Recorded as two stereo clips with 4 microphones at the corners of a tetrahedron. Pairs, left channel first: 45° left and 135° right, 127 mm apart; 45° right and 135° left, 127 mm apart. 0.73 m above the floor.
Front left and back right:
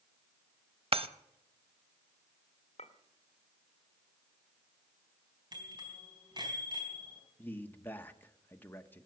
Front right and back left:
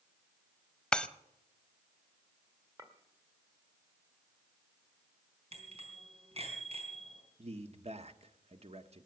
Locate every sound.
0.9 s breaking glass: 125° right, 0.7 m
2.8 s a clink: 75° left, 1.8 m
5.5 s a bicycle bell: 170° left, 4 m
7.4 s a man speaking: 120° left, 1.1 m